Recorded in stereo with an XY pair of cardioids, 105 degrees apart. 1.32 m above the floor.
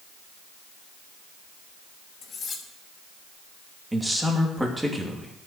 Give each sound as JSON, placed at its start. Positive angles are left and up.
{"t": 2.2, "sound": "cutlery clinking", "azimuth_deg": 50, "distance_m": 2.5}
{"t": 3.9, "sound": "a man speaking", "azimuth_deg": -10, "distance_m": 2.5}